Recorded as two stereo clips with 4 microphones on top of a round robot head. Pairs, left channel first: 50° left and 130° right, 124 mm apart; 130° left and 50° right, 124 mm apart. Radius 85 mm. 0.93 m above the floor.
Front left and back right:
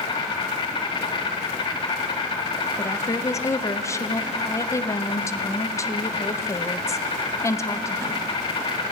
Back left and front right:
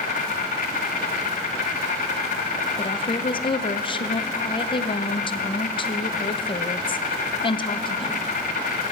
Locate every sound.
0.0 s an insect: 105° left, 1.2 m
2.8 s a woman speaking: 110° left, 0.7 m